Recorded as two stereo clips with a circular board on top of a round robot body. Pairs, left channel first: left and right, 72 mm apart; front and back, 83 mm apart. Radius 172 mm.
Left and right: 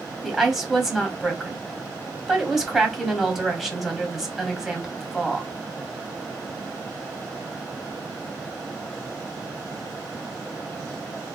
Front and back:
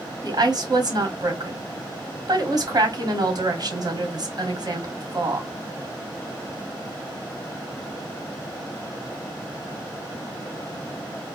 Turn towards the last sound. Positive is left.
turn(degrees=-175)